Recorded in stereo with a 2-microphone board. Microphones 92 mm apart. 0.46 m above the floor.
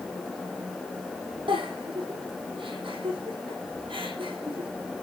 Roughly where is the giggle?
Right.